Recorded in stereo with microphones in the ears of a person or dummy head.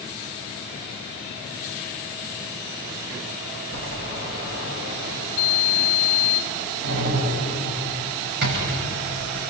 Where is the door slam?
60° right (ahead or behind), 6.5 m.